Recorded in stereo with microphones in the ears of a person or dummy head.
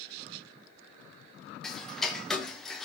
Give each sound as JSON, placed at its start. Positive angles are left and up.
{"t": 1.6, "sound": "ticking", "side_deg": 0, "distance_m": 0.7}